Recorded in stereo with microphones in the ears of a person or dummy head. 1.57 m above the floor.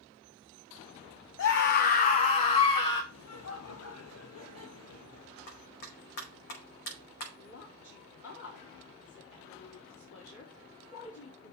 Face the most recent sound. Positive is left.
turn(degrees=75)  # may be behind; listen again after turning